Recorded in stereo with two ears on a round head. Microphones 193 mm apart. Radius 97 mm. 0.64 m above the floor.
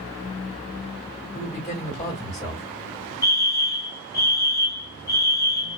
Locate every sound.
1.3 s a man speaking: 25° left (ahead or behind), 1.5 m
3.2 s a fire alarm: 15° left (ahead or behind), 1.9 m